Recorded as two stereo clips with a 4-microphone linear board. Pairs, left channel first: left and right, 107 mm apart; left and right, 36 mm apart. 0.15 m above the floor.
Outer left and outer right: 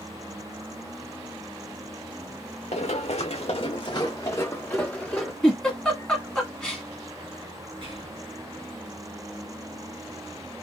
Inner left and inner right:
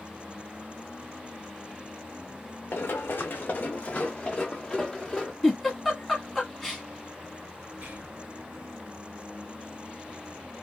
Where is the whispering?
50° right (ahead or behind), 1.8 m.